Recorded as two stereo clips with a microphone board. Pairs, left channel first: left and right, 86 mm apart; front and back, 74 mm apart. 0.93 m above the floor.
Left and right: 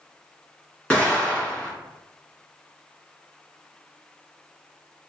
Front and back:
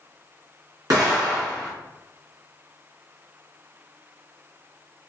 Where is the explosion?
165° left, 1.3 m.